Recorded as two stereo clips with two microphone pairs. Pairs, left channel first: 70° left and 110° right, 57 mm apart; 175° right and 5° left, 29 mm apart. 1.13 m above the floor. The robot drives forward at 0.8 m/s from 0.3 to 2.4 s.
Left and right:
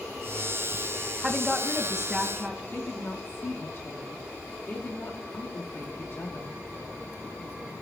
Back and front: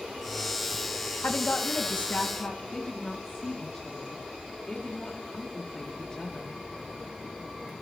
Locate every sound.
1.2 s a woman speaking: 170° left, 1.3 m; by 2.6 s 175° left, 2 m
2.7 s a woman speaking: 120° left, 2 m